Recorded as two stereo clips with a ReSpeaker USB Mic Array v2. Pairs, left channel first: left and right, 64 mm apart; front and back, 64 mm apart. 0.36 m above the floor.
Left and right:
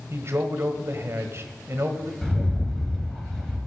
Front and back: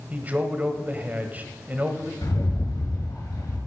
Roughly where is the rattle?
Ahead.